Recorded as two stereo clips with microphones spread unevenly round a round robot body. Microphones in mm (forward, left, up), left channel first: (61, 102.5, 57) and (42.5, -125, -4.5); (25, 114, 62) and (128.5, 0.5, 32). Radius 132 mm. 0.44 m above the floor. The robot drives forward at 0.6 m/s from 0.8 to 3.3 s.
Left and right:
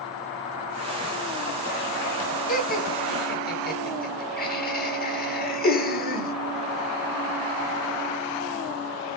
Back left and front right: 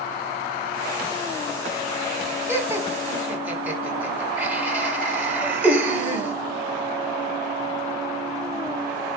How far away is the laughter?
About 4.5 m.